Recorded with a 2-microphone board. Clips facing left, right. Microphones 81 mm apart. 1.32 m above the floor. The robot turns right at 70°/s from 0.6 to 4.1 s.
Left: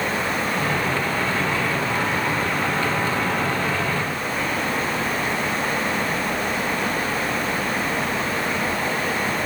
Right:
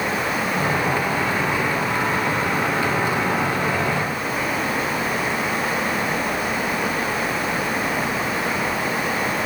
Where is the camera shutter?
I don't hear a camera shutter.